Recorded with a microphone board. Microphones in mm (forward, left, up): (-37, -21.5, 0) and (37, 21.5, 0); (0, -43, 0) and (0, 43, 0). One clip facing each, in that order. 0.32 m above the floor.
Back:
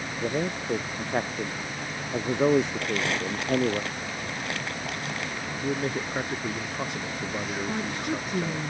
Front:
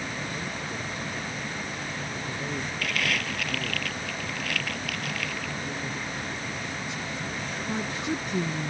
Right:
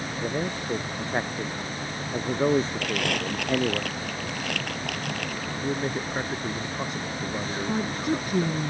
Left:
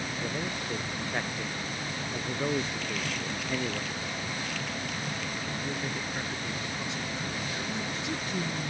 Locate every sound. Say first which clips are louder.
0.2 s a man speaking: back 6 dB, right 7 dB; 150° right; by 3.8 s 145° right
2.8 s crumpling: back 2 dB, right 6 dB; 90° right
5.6 s a man speaking: back 5 dB, right 6 dB; 130° right
7.7 s a woman speaking: front 3 dB, right 7 dB; 65° right